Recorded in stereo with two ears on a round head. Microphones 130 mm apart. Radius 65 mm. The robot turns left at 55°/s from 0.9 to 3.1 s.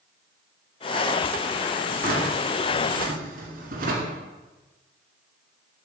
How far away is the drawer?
About 1.9 m.